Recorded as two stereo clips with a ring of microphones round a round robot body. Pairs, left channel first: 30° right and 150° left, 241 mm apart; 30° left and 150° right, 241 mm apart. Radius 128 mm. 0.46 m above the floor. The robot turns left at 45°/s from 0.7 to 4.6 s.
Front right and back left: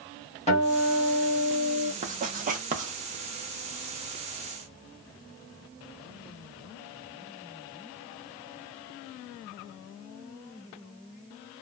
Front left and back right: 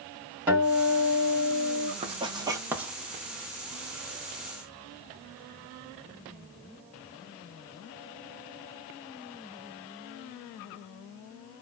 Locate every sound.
0.5 s a guitar: 75° right, 1.6 m; by 1.9 s 130° right, 1.6 m
2.0 s writing: 170° left, 0.8 m; by 2.9 s 130° left, 0.8 m